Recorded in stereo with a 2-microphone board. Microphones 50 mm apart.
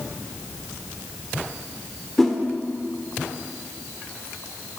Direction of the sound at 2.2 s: 5° left (ahead or behind).